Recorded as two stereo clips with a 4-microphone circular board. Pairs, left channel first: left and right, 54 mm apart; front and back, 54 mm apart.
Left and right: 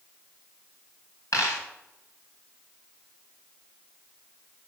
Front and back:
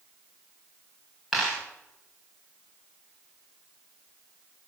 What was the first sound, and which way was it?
A dropped coin, 95° left.